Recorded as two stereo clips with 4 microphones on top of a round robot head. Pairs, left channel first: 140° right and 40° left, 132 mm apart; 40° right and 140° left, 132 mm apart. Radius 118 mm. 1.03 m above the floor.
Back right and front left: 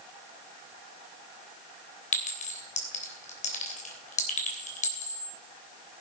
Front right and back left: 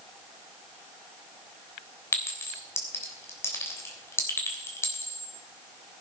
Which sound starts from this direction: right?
A clink, at 2.1 s.